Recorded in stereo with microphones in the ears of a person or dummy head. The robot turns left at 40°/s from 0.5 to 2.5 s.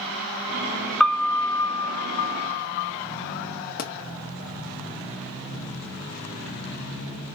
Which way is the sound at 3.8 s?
50° left (ahead or behind).